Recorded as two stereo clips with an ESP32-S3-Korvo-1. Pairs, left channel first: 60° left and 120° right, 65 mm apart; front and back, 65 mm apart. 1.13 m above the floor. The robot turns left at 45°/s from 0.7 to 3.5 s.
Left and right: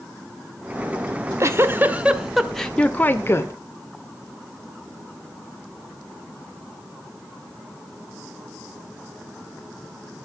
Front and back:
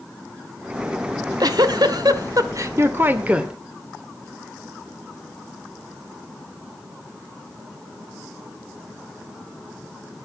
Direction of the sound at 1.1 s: 150° right.